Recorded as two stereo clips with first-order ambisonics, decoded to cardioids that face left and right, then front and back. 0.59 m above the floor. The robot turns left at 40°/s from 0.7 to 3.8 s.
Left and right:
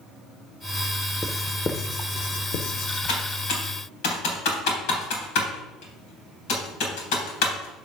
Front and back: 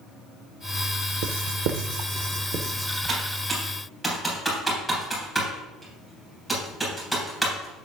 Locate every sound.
1.2 s writing: straight behind, 0.6 m; by 3.0 s 110° left, 0.6 m
3.1 s typing on a keyboard: 120° left, 3 m; by 7.9 s 90° left, 3 m